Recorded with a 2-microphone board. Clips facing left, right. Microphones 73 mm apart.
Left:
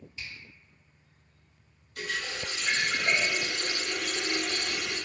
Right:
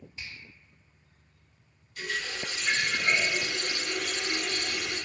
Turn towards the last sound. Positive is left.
turn(degrees=70)  # may be behind; listen again after turning